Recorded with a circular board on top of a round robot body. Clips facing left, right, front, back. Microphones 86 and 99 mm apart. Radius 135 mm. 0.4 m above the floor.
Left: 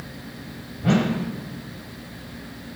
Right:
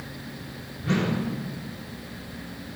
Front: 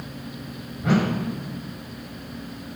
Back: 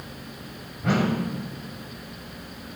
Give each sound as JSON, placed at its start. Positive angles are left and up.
{"t": 0.8, "sound": "a whoosh", "azimuth_deg": 90, "distance_m": 3.5}